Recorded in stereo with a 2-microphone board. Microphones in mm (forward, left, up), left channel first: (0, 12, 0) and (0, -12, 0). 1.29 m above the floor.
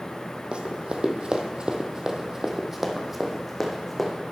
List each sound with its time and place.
0.5 s running footsteps: 45° right (ahead or behind), 2.0 m; by 4.1 s 5° left (ahead or behind), 3 m